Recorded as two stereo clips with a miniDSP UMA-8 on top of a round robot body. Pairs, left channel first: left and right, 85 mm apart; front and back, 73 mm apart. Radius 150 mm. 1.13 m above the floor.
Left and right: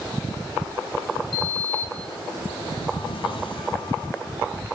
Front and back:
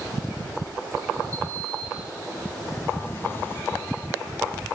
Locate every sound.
1.3 s a sliding door: 65° left, 2.5 m